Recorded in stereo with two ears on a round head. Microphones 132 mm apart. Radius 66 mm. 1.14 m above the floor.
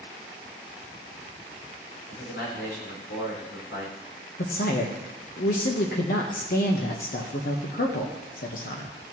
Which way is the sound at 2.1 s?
75° left (ahead or behind).